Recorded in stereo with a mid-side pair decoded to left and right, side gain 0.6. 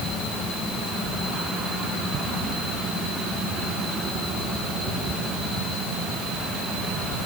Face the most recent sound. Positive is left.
No sound to turn to.